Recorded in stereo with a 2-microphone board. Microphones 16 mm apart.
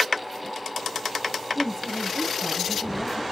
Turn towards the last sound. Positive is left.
turn(degrees=30)  # may be behind; listen again after turning